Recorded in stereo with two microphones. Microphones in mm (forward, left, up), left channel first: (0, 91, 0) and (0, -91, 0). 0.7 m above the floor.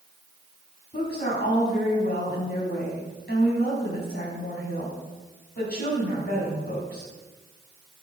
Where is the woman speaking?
55° left (ahead or behind), 5.5 m.